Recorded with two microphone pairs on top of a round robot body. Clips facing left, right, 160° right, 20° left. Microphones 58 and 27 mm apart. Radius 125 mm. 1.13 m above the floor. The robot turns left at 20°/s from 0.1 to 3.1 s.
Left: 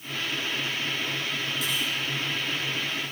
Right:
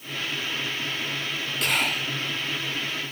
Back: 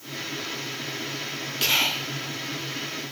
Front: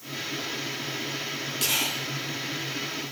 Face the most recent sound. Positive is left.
turn(degrees=-125)